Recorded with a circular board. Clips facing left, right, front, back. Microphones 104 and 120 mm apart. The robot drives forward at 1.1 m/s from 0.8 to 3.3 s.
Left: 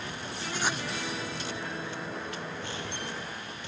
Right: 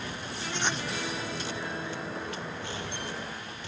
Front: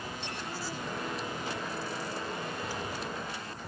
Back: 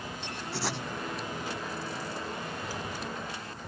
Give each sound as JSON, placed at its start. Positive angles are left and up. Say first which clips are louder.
{"t": 0.5, "sound": "writing", "louder": "even, back 7 dB", "azimuth_deg": 175}